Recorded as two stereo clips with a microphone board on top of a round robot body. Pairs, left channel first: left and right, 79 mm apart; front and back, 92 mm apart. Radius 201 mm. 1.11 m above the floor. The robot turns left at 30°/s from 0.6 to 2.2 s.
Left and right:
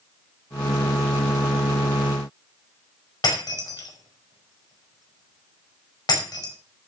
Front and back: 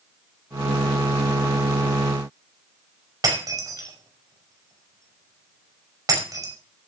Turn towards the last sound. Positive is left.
turn(degrees=125)